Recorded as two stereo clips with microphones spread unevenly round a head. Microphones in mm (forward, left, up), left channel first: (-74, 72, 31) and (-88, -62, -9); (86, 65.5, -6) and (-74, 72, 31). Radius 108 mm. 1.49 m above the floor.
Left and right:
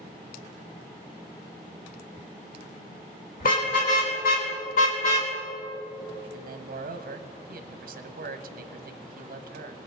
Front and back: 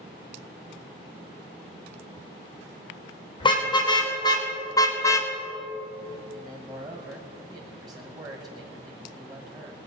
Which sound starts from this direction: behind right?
A man speaking, at 6.3 s.